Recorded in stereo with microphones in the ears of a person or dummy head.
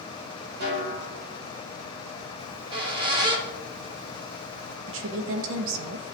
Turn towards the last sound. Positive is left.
turn(degrees=-75)  # may be behind; listen again after turning